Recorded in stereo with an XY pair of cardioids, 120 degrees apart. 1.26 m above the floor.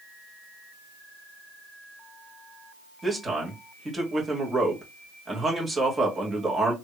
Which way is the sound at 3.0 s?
20° right.